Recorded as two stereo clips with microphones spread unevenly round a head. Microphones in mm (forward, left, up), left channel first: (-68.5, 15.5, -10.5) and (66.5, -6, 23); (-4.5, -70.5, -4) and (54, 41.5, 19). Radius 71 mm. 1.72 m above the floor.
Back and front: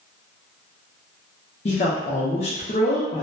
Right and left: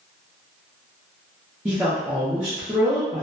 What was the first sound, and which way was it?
A woman speaking, 130° left.